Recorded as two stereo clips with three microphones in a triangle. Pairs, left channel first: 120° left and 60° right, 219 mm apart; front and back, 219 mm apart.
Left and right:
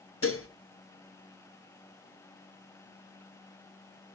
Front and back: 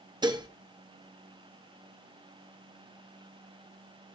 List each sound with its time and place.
0.2 s dishes clattering: 110° left, 1.1 m